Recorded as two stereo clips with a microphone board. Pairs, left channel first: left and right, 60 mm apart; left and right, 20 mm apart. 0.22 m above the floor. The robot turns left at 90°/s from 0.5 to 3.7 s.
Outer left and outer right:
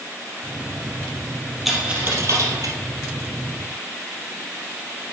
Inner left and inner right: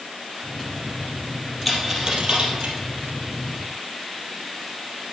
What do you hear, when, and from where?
1.6 s a dropped coin: centre (ahead or behind), 2.5 m; by 2.8 s 75° right (ahead or behind), 2.5 m